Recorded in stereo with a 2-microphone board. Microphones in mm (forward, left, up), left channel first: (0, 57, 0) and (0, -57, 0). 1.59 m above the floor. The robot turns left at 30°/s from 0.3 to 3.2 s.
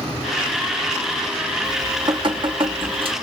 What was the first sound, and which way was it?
Dripping, 45° right.